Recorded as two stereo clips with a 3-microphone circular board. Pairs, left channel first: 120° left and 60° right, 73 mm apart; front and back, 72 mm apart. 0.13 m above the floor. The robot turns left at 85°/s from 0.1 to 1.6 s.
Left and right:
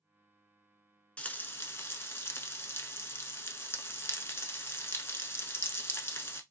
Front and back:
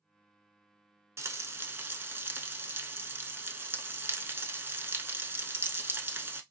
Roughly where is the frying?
Behind.